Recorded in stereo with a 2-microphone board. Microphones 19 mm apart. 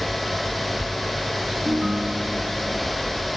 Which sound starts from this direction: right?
A ringtone, at 1.6 s.